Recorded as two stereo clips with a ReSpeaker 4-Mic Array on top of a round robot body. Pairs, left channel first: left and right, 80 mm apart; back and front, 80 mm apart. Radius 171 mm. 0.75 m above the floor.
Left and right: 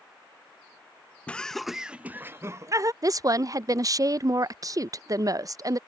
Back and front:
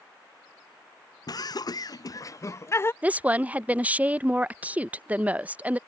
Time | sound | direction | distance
1.3 | laughter | 165° left | ?
3.0 | a woman speaking | 65° right | ?